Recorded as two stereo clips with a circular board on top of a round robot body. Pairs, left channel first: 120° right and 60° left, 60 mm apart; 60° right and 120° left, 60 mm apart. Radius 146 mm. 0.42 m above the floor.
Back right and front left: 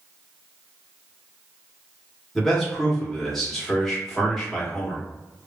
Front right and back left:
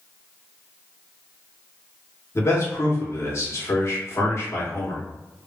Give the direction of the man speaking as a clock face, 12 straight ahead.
1 o'clock.